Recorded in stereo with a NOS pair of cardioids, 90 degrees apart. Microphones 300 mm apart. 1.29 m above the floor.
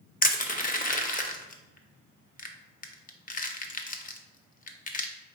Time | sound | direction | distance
0.2 | crushing | 30° left | 0.7 m